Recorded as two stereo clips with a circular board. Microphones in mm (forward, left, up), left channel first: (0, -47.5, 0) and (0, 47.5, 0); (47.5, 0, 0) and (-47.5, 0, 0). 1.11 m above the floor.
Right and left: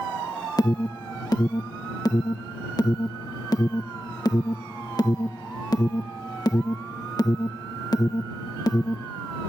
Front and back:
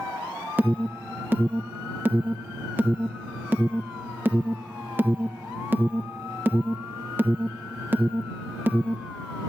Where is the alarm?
115° right.